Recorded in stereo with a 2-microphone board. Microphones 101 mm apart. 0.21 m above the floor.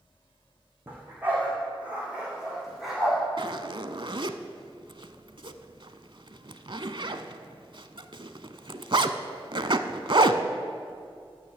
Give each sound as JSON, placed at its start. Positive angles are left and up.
{"t": 0.9, "sound": "a dog barking", "side_deg": -20, "distance_m": 4.5}
{"t": 3.4, "sound": "a zipper", "side_deg": -55, "distance_m": 0.6}